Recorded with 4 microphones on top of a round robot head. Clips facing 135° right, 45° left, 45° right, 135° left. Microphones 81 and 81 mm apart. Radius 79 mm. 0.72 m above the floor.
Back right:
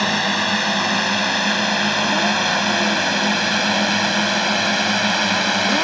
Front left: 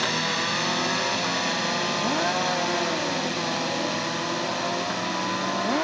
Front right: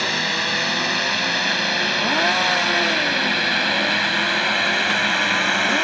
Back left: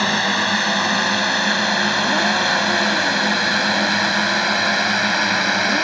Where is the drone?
170° right; by 5.8 s 145° right.